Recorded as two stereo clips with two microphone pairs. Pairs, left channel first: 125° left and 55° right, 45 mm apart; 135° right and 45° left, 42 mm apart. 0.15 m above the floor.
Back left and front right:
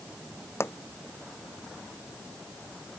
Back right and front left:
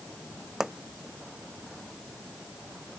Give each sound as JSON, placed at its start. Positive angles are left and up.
{"t": 0.6, "sound": "a pop", "azimuth_deg": 120}